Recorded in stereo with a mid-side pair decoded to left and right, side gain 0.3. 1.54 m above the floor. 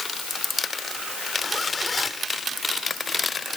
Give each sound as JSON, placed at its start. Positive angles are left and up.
{"t": 1.4, "sound": "a zipper", "azimuth_deg": 50}